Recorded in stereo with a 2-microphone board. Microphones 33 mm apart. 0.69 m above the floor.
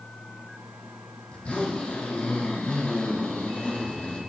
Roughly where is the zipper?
Left.